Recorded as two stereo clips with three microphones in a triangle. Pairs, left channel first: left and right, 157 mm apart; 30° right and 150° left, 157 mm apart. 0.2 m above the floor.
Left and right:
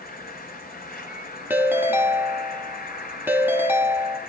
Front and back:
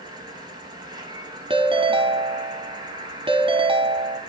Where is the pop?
I don't hear a pop.